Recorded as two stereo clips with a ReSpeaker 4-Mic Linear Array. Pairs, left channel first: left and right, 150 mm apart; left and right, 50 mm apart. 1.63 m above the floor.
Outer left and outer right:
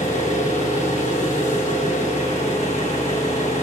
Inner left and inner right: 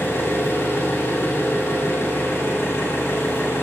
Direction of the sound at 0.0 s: 60° left (ahead or behind).